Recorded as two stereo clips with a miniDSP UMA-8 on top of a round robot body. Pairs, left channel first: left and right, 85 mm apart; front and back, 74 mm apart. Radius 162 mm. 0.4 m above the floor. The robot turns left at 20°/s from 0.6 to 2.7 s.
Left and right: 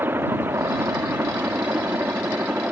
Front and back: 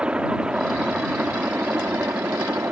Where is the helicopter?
120° right; by 2.7 s 145° right.